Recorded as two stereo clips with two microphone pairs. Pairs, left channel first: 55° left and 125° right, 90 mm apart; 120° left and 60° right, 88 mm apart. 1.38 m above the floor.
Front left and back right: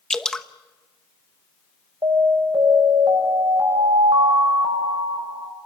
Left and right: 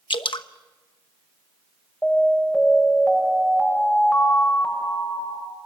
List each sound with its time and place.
0.1 s dripping: 135° left, 1.0 m
2.0 s an alarm: 160° right, 6.5 m